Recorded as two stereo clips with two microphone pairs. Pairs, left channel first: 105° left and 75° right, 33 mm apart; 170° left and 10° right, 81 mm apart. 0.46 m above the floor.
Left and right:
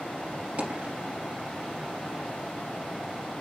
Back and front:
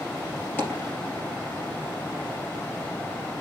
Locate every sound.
0.6 s a dropped coin: 125° right, 3 m